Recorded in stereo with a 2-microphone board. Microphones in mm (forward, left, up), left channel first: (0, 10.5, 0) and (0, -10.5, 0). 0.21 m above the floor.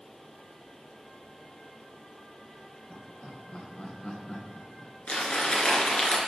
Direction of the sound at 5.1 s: 60° left (ahead or behind).